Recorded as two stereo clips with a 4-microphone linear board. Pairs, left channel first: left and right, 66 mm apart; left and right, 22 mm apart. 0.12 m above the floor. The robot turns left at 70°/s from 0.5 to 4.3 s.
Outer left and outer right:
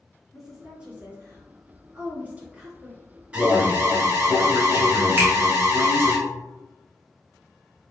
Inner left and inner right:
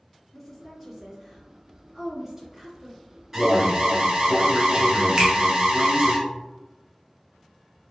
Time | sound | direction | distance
0.3 | a woman speaking | 10° right (ahead or behind) | 1.8 m
3.3 | an alarm | 30° right | 0.9 m
5.2 | a finger snap | 30° right (ahead or behind) | 1.3 m